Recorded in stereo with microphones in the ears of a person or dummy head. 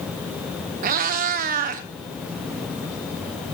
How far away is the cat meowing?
About 1.0 m.